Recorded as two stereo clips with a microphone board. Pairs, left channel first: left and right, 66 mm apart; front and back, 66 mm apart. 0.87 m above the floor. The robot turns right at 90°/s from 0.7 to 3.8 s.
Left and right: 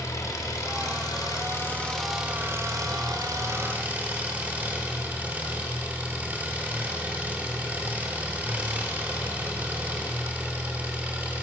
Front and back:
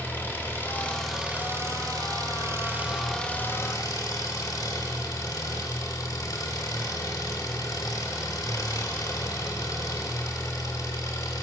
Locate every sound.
0.0 s an engine running: 55° left, 3 m; by 11.4 s 25° right, 3 m